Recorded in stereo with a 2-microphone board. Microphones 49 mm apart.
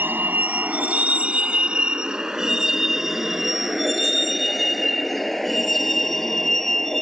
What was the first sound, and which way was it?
A vehicle, 40° right (ahead or behind).